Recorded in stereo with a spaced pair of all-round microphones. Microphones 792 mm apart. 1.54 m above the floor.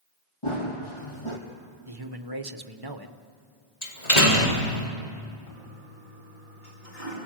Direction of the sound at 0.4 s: 40° left (ahead or behind).